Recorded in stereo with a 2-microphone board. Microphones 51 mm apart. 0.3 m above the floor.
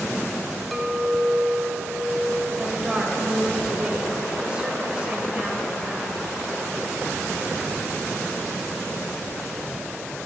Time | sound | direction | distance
0.7 | a clink | centre (ahead or behind) | 0.6 m
2.6 | a woman speaking | 20° right (ahead or behind) | 1.1 m